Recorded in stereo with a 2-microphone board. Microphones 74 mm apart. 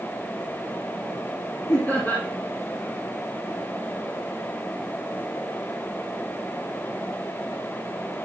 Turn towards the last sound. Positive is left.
turn(degrees=40)  # may be behind; listen again after turning